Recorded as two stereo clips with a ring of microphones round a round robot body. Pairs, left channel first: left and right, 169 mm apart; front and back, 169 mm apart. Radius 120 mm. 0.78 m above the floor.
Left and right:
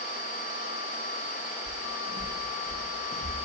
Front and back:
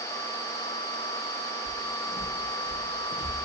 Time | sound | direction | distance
1.6 | footsteps | 115° left | 4.5 m